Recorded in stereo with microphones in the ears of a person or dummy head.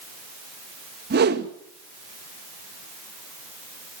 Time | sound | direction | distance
1.1 | a whoosh | 55° right (ahead or behind) | 1.4 m